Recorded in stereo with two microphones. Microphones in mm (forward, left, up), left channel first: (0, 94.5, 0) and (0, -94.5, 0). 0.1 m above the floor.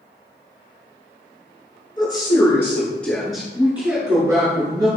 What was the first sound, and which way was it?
A woman speaking, 25° left (ahead or behind).